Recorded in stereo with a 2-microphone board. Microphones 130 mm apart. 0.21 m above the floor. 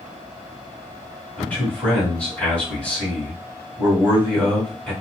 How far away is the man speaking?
About 1.7 m.